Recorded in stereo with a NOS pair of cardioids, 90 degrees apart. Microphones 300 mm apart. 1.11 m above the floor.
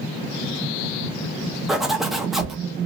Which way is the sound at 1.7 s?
Straight ahead.